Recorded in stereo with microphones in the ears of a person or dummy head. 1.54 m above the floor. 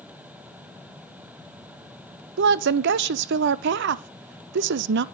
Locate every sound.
2.4 s a woman speaking: 70° right (ahead or behind), 0.6 m